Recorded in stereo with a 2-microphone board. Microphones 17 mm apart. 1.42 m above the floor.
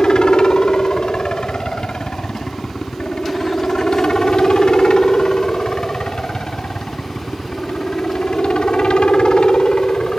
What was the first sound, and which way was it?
A helicopter, 60° left (ahead or behind).